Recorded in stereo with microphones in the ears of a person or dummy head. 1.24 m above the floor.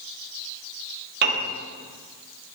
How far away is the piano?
About 0.9 m.